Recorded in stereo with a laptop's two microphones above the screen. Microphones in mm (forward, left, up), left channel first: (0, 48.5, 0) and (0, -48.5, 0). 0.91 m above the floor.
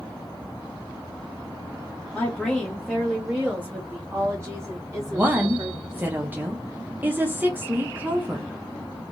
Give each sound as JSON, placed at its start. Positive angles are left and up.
{"t": 2.1, "sound": "a woman speaking", "side_deg": 10, "distance_m": 1.3}
{"t": 5.1, "sound": "a woman speaking", "side_deg": -20, "distance_m": 0.8}